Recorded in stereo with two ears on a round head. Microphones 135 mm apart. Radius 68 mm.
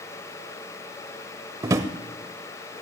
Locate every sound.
1.6 s a drawer: 20° right (ahead or behind), 0.8 m